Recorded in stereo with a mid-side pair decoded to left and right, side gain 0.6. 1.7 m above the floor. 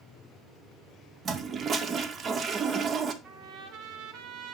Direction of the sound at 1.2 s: 40° right.